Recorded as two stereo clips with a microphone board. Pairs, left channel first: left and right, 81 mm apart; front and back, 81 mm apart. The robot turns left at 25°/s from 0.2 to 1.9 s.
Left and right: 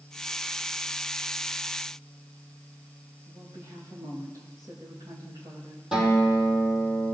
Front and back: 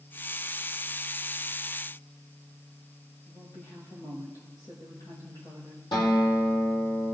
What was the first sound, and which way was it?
A woman speaking, 50° right.